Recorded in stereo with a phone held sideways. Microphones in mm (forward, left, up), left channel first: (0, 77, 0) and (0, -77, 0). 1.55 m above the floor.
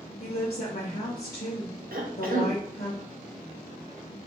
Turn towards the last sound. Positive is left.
turn(degrees=-70)  # may be behind; listen again after turning